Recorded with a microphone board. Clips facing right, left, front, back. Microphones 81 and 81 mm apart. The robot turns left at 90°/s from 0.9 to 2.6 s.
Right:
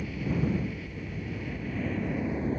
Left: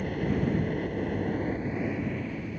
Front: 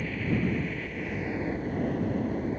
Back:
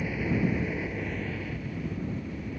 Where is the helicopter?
105° left; by 2.6 s 50° right.